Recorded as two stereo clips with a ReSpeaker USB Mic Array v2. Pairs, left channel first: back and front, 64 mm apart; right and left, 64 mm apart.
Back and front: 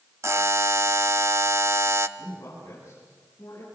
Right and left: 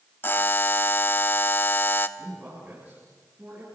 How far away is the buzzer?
About 0.8 m.